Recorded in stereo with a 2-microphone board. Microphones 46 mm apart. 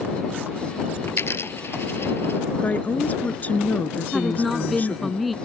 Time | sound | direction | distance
1.1 | a dropped coin | 65° left (ahead or behind) | ?
2.6 | a woman speaking | 35° left (ahead or behind) | ?
4.1 | a woman speaking | centre (ahead or behind) | ?